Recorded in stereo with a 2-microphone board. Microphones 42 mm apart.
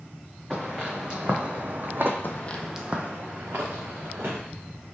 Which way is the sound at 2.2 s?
55° left (ahead or behind).